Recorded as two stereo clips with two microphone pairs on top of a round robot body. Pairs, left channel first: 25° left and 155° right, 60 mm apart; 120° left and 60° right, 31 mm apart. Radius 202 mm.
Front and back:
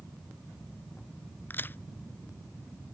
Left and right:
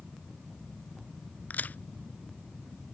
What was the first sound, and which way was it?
A crack, 85° left.